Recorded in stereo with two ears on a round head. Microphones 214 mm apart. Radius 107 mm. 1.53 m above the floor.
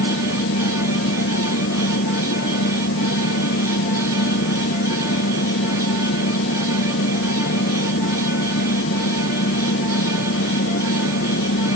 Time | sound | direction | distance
0.0 | an engine running | 45° left (ahead or behind) | ?